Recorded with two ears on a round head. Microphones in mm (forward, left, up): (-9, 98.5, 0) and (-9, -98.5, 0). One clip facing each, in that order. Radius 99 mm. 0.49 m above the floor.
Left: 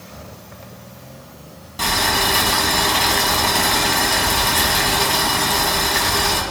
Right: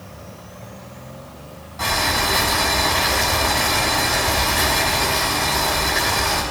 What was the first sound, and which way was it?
Boiling, 40° left (ahead or behind).